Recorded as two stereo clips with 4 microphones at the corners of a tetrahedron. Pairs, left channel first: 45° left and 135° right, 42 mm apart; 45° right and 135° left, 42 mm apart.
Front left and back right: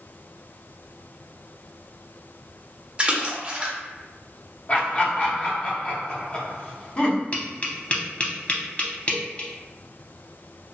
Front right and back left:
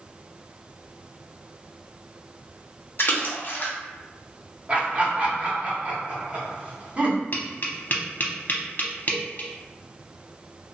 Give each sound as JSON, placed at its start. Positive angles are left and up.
{"t": 3.0, "sound": "a splash", "azimuth_deg": -75, "distance_m": 0.6}
{"t": 4.7, "sound": "laughter", "azimuth_deg": 90, "distance_m": 1.0}
{"t": 7.3, "sound": "tapping", "azimuth_deg": -5, "distance_m": 0.6}